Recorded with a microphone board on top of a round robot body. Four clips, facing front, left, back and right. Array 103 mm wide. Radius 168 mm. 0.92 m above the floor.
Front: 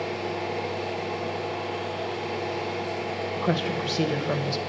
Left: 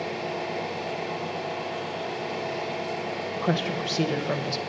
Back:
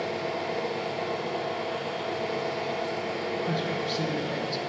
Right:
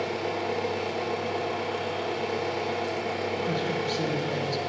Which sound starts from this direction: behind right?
An engine running, at 0.0 s.